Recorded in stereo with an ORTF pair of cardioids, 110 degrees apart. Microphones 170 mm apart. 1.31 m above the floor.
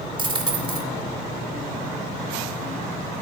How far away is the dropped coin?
About 2.5 m.